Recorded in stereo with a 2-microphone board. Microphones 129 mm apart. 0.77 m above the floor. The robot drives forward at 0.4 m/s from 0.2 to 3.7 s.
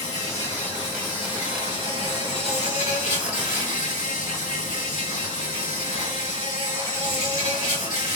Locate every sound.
0.0 s an insect: 35° left (ahead or behind), 2 m; by 8.2 s 70° left (ahead or behind), 1.2 m